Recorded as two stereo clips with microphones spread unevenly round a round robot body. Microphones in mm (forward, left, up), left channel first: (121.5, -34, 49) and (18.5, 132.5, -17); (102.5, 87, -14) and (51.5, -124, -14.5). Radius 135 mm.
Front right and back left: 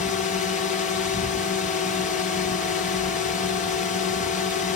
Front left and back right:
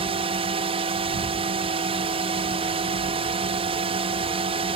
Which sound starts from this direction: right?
A drone, at 0.0 s.